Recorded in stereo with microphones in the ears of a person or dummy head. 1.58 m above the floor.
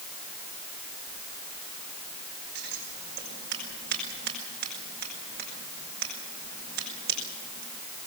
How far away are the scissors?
About 6 m.